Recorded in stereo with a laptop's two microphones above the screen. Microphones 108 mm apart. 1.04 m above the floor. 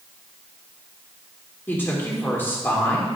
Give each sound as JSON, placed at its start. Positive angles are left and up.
{"t": 1.7, "sound": "a woman speaking", "side_deg": 20, "distance_m": 2.5}